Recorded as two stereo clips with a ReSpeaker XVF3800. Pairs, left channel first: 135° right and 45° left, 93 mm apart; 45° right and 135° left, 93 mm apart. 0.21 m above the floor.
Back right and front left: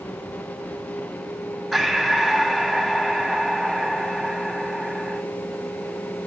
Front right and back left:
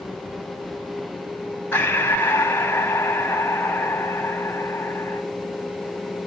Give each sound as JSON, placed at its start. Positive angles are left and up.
{"t": 1.7, "sound": "breathing", "azimuth_deg": -40, "distance_m": 1.2}